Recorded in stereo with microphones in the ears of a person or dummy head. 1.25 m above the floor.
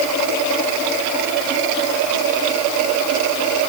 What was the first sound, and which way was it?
Only background noise.